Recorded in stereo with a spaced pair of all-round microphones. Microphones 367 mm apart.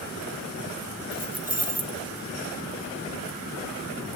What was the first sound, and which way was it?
Keys jangling, 20° right (ahead or behind).